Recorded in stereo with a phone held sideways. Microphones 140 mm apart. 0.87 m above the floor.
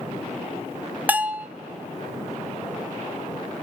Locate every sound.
1.1 s a bell: 10° right (ahead or behind), 0.6 m